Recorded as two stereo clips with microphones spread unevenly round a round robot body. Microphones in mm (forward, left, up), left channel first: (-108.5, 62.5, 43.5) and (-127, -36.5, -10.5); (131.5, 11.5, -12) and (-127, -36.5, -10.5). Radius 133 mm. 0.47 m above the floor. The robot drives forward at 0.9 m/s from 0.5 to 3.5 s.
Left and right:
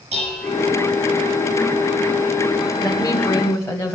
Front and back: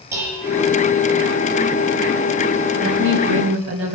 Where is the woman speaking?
140° left, 2 m; by 4.0 s 150° left, 2.5 m.